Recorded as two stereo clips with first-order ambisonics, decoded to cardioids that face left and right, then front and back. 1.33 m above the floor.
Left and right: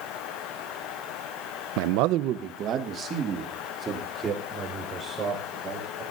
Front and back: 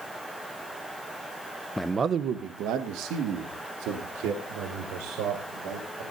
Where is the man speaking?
85° right, 0.6 m; by 6.0 s 165° right, 5.5 m.